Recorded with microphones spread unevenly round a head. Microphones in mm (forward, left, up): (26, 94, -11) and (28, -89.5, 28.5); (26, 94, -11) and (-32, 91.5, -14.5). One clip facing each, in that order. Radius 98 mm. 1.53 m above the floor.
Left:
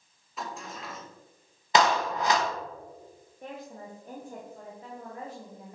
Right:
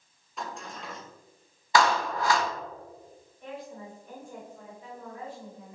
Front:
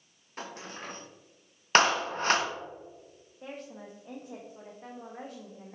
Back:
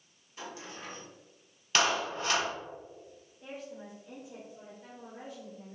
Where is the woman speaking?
45° left, 1.3 m.